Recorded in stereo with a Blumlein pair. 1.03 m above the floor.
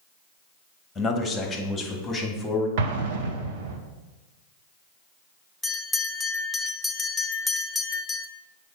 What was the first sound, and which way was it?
A man speaking, 10° left.